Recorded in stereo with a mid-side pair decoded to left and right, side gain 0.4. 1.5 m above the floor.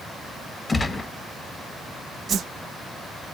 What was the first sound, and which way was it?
A gunshot, 30° left.